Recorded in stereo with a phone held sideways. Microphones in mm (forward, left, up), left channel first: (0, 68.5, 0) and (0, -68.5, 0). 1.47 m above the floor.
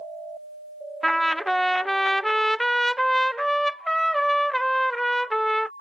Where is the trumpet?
Centre (ahead or behind).